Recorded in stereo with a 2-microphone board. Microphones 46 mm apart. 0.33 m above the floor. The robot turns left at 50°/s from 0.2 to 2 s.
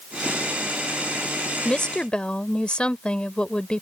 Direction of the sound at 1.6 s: 25° left (ahead or behind).